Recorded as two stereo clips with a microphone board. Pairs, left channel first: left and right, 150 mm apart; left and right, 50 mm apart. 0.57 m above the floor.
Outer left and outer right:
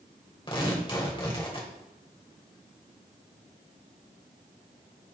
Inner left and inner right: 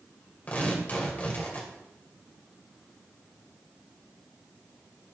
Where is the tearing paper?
35° left (ahead or behind), 2.5 m.